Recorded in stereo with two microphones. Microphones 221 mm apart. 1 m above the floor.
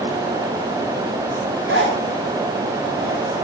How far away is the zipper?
About 4.5 m.